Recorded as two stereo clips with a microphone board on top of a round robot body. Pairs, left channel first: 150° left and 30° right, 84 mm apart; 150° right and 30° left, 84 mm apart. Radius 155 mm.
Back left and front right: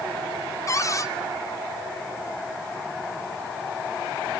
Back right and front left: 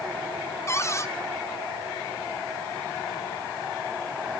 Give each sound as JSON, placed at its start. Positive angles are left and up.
{"t": 0.7, "sound": "a cupboard door", "azimuth_deg": 175, "distance_m": 1.5}